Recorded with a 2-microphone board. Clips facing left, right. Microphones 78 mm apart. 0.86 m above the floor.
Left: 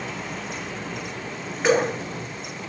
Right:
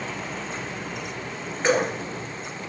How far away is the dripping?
About 3 m.